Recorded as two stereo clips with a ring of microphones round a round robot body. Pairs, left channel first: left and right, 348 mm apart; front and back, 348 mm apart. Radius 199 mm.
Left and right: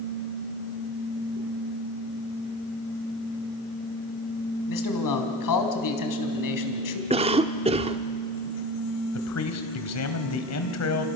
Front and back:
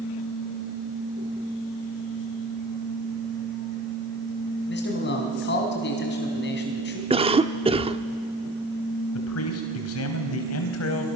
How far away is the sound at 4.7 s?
About 3.5 m.